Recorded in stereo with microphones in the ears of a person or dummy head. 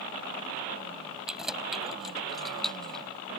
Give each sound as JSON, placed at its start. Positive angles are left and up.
{"t": 1.3, "sound": "keys jangling", "side_deg": 0}